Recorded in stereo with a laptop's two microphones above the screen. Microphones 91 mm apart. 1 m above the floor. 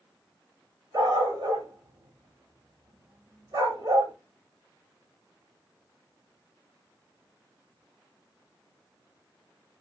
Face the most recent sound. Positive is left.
turn(degrees=-50)  # may be behind; listen again after turning